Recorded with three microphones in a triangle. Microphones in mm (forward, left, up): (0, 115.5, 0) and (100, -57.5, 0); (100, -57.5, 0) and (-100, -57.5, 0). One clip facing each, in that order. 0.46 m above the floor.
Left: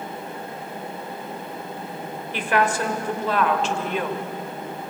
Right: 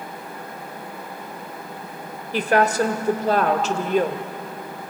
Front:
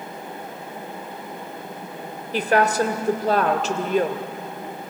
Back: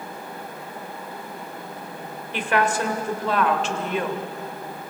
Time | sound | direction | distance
2.3 | a woman speaking | 30° right | 1.8 m